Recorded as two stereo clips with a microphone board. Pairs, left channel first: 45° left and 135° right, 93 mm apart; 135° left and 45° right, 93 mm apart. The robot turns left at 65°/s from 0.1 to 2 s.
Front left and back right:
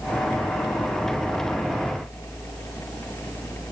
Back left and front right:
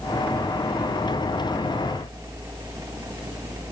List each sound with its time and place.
Only background noise.